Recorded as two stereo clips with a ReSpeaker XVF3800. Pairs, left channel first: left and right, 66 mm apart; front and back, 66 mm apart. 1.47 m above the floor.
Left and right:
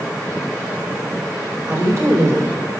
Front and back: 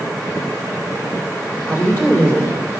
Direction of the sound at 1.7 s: 45° right.